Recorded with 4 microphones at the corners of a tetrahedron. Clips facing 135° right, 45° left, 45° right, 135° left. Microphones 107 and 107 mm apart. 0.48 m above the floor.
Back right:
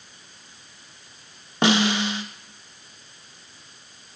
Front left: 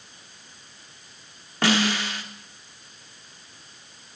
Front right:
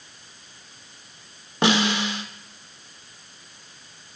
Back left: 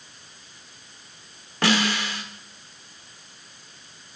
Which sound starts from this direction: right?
A snare drum, at 1.6 s.